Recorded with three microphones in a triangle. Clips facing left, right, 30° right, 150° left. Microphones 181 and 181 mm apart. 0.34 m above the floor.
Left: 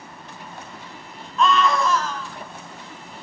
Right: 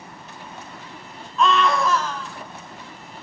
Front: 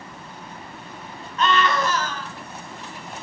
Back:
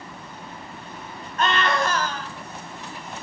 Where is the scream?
Straight behind, 2.5 m.